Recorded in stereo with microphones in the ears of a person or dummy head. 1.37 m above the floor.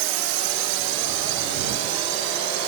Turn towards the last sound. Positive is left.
turn(degrees=-65)  # may be behind; listen again after turning